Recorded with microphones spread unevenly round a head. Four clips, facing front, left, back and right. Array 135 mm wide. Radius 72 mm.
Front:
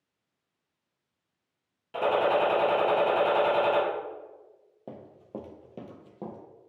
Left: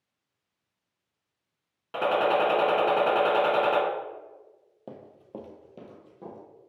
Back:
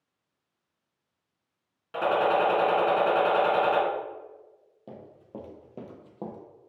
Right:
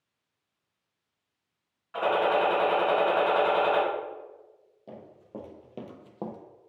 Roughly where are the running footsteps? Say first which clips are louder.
Left 1 dB, front 2 dB; ahead left.